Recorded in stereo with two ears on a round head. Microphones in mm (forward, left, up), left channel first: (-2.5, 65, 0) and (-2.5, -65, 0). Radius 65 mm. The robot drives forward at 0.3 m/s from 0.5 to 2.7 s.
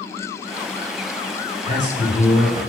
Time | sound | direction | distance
1.6 | a man speaking | 40° right (ahead or behind) | 1.3 m